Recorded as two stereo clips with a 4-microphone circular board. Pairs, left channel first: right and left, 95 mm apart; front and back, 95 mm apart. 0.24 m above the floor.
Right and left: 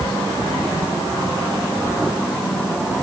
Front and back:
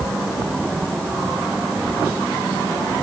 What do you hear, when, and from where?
Only background noise.